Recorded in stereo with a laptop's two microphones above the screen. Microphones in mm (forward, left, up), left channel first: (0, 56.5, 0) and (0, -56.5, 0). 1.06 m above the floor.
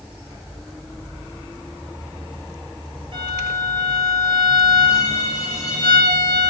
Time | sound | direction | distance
3.1 | a violin | 50° right (ahead or behind) | 7 m